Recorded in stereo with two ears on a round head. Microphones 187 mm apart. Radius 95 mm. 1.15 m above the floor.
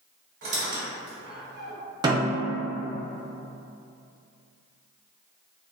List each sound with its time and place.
0.4 s a squeak: 55° right (ahead or behind), 1.7 m
2.0 s a snare drum: 20° right (ahead or behind), 0.6 m